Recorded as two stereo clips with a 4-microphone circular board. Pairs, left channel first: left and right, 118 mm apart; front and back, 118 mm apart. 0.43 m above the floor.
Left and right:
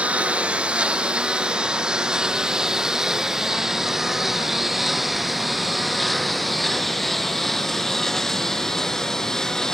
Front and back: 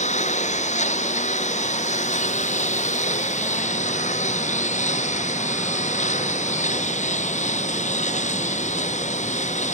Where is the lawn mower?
10° right; by 9.8 s 5° left.